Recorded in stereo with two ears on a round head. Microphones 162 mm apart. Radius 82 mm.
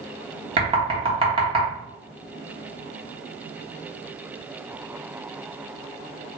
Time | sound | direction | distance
0.6 | knocking | 30° right (ahead or behind) | 1.1 m